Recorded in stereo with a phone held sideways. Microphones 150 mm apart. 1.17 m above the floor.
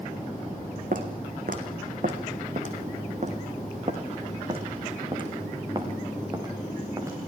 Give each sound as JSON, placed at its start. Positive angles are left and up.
{"t": 0.9, "sound": "footsteps", "side_deg": -65, "distance_m": 3.0}